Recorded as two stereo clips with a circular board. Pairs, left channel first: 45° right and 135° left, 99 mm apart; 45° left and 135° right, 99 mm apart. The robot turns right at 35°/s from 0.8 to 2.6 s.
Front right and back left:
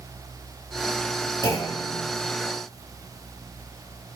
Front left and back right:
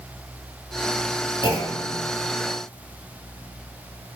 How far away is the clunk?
About 1.4 m.